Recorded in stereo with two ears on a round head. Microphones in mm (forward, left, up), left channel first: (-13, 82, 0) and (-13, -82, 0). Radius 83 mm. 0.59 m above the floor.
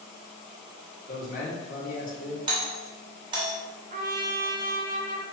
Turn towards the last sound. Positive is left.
turn(degrees=-45)  # may be behind; listen again after turning